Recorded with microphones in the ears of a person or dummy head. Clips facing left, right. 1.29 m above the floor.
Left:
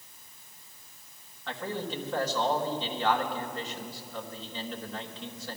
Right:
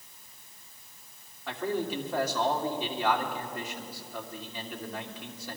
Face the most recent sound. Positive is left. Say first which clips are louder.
# right 4 dB
turn(degrees=-5)  # may be behind; listen again after turning